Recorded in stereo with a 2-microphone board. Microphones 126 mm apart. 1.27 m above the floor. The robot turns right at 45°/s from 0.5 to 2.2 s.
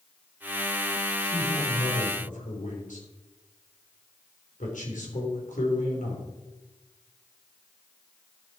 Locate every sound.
1.2 s a man speaking: 35° left (ahead or behind), 3.5 m; by 6.2 s 80° left, 3.5 m